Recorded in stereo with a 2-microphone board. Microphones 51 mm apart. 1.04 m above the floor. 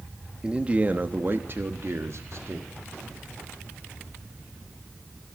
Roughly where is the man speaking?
Centre.